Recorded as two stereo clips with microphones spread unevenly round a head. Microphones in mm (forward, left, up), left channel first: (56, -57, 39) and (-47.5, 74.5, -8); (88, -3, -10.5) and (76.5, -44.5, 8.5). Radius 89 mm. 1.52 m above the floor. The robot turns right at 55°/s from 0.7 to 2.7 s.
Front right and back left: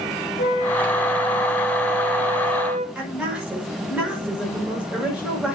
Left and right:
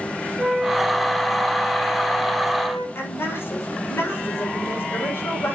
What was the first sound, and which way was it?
A flute, 40° right.